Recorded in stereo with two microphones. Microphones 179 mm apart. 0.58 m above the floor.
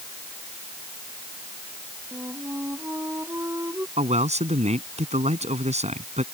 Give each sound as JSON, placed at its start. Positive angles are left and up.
{"t": 2.1, "sound": "a flute", "side_deg": -10}
{"t": 4.0, "sound": "a man speaking", "side_deg": -40}